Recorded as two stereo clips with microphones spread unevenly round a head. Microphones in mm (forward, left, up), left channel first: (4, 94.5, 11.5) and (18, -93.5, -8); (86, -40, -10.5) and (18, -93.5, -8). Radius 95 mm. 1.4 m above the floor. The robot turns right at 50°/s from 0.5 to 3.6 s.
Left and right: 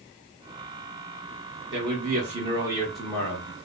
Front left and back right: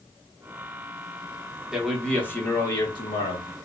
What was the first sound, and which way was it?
A man speaking, 60° right.